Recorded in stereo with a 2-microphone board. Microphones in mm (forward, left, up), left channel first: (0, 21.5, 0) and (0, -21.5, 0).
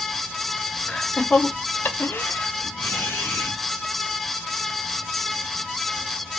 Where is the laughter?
15° left (ahead or behind), 1.1 m; by 3.5 s 75° left (ahead or behind), 1.9 m.